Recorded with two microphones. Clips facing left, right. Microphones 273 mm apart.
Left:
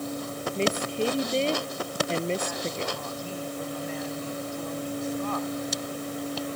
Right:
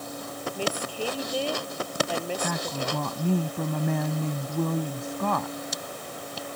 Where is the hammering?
I don't hear hammering.